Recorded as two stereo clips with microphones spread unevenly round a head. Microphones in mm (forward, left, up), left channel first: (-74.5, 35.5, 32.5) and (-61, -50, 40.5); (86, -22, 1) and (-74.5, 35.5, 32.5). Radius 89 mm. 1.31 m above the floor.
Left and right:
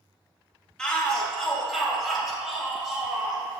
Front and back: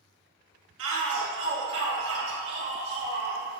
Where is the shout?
Straight behind, 2.0 m; by 3.4 s 165° right, 4 m.